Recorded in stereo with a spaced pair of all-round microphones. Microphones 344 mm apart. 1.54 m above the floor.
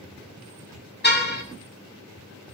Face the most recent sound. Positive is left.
turn(degrees=30)  # may be behind; listen again after turning